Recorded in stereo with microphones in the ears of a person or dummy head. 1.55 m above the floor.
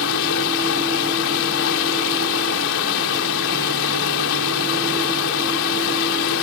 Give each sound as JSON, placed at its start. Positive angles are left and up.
{"t": 0.0, "sound": "running water", "side_deg": 75}